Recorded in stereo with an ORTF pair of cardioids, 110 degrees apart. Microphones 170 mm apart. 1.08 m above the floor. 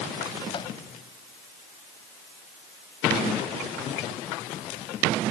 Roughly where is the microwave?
Ahead left.